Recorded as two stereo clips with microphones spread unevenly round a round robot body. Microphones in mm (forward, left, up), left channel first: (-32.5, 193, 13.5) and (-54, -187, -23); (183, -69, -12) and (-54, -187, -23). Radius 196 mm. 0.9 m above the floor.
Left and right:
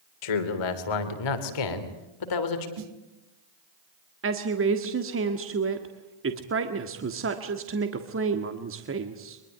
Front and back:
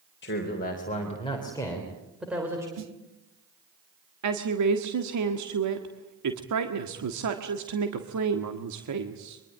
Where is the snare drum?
130° right, 1.9 m.